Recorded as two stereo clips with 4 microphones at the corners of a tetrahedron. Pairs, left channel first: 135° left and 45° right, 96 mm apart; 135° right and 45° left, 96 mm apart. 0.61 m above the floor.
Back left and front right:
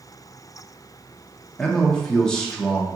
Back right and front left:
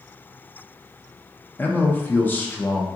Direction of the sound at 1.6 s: 160° right.